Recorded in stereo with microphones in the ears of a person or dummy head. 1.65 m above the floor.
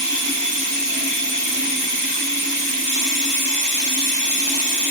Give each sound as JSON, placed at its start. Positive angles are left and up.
{"t": 0.0, "sound": "running water", "side_deg": -55, "distance_m": 0.8}